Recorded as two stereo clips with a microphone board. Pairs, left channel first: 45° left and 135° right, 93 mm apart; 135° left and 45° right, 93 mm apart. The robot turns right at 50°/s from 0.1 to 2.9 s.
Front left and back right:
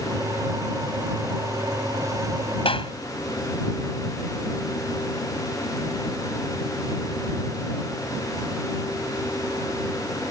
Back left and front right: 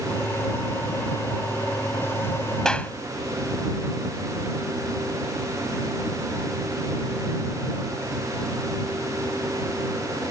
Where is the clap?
50° left; by 2.9 s 65° left.